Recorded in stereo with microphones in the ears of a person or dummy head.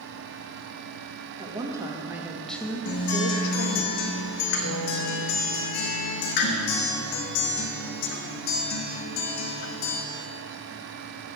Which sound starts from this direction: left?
A guitar, at 2.9 s.